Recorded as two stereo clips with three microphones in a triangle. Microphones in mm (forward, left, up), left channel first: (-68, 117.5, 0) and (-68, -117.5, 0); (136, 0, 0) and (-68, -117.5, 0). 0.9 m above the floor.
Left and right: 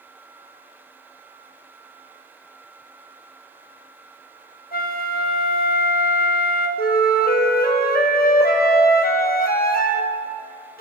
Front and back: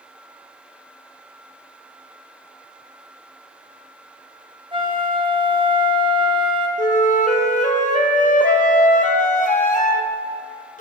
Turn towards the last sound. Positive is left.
turn(degrees=65)